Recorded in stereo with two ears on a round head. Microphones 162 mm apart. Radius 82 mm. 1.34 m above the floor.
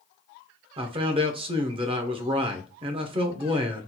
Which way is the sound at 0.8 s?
30° right (ahead or behind).